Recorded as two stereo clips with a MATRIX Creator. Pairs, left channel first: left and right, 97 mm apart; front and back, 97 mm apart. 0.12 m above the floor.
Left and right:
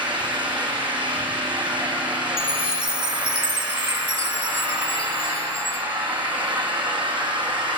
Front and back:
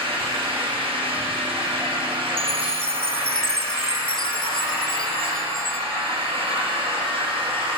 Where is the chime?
85° left, 1.0 m.